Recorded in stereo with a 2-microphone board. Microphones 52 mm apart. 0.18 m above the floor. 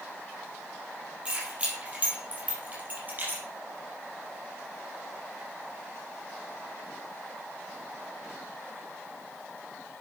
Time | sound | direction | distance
1.2 | keys jangling | 20° right (ahead or behind) | 4 m